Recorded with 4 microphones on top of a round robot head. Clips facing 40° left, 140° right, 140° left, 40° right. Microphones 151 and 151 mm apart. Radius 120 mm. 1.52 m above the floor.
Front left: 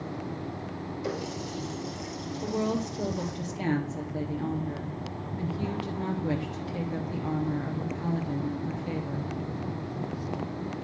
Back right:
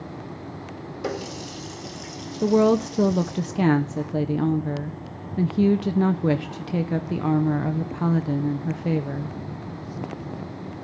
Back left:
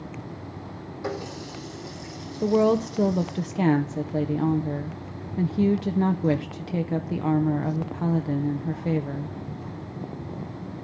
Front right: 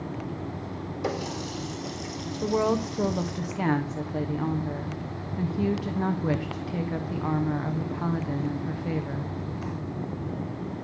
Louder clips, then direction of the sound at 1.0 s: Back right 4 dB, front right 1 dB; 110° right.